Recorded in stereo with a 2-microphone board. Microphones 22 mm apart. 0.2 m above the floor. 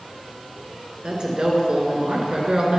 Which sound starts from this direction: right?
A woman speaking, at 1.0 s.